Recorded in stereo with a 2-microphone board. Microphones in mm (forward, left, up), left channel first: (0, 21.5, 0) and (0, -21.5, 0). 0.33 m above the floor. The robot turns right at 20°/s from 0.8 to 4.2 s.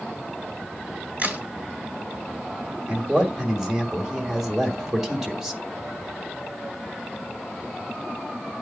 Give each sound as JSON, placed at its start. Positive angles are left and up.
{"t": 1.2, "sound": "a crack", "side_deg": -40, "distance_m": 1.7}
{"t": 2.9, "sound": "a man speaking", "side_deg": -20, "distance_m": 1.5}